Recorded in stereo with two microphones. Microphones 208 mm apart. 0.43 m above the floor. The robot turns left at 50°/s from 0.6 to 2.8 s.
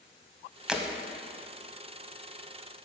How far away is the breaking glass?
About 0.8 m.